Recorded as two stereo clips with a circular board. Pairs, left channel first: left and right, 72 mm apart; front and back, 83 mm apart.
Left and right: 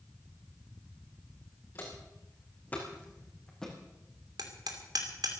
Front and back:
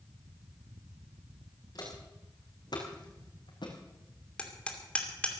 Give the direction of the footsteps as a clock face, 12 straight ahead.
11 o'clock.